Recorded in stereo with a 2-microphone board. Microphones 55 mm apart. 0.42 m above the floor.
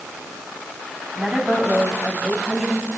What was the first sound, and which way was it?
A woman speaking, centre (ahead or behind).